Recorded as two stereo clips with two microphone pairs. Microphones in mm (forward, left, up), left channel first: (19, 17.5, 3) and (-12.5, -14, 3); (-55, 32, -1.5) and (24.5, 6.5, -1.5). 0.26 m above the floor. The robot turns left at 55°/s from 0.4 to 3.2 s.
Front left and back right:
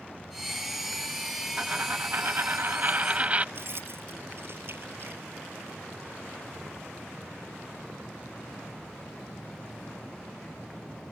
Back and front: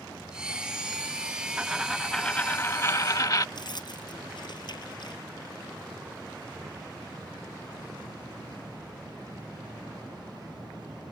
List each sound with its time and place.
1.6 s a dropped coin: 90° right; by 3.5 s straight behind
3.5 s keys jangling: 170° right